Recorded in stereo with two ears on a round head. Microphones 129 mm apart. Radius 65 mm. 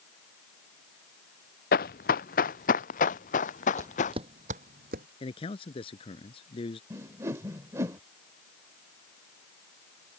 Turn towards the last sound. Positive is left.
turn(degrees=-20)  # may be behind; listen again after turning